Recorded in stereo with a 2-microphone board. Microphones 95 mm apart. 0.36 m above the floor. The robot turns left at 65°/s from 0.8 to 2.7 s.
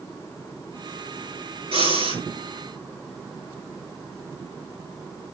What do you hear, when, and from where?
1.7 s breathing: 90° right, 4.5 m; by 2.2 s 125° right, 4.5 m